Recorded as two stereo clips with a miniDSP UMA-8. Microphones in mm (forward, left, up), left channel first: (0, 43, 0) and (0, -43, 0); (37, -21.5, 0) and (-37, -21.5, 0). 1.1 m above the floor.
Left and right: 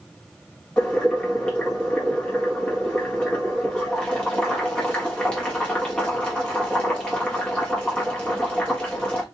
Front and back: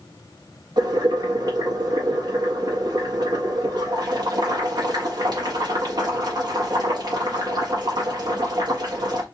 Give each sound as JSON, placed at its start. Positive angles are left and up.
{"t": 0.8, "sound": "boiling", "azimuth_deg": 170, "distance_m": 1.4}